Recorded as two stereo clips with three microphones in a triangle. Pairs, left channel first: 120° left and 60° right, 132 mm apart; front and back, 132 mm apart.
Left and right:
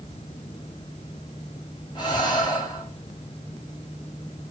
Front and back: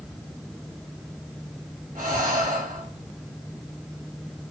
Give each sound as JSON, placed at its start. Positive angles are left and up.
{"t": 1.9, "sound": "breathing", "azimuth_deg": 175, "distance_m": 1.7}